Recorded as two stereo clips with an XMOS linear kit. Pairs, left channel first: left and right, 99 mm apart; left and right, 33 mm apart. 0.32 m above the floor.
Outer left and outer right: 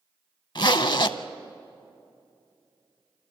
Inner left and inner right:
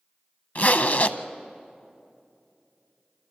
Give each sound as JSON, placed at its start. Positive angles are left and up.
{"t": 0.6, "sound": "a zipper", "side_deg": 50, "distance_m": 0.6}